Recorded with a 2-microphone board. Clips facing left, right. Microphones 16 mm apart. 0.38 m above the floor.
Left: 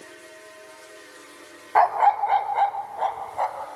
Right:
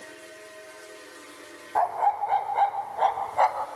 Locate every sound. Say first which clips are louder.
1.8 s a dog barking: left 6 dB; 60° left (ahead or behind), 0.9 m; by 3.7 s 30° right (ahead or behind), 1.2 m